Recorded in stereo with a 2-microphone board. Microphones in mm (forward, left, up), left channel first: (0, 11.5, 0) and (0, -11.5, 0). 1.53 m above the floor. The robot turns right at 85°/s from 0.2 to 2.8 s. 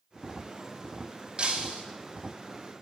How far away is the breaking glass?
About 1.8 m.